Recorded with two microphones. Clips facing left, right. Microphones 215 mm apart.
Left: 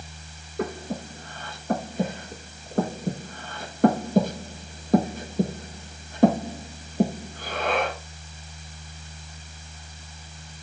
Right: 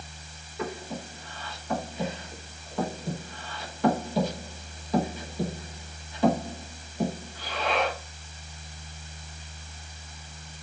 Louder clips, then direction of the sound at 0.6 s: Left 4 dB; 50° left (ahead or behind).